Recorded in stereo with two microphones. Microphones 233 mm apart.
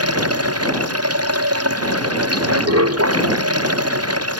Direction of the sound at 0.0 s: 85° right.